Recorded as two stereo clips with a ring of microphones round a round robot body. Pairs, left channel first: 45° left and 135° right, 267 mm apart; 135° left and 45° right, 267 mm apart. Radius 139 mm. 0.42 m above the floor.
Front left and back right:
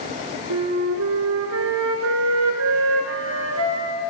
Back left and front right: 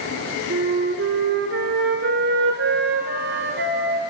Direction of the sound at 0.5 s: 100° right.